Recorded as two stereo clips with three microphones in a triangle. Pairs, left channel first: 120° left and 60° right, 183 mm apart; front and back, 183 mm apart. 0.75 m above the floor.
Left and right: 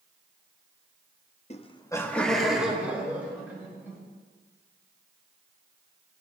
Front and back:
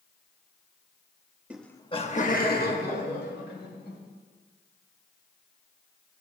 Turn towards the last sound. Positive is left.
turn(degrees=15)